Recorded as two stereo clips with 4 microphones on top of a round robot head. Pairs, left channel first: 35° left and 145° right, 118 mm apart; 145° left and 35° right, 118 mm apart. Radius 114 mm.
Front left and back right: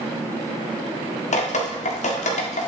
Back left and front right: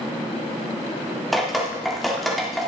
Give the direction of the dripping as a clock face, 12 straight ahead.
10 o'clock.